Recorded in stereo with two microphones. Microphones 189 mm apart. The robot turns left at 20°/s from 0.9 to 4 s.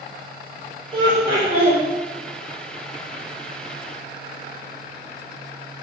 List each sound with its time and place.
0.9 s laughter: 25° right (ahead or behind), 1.1 m; by 1.8 s 30° right (ahead or behind), 1.1 m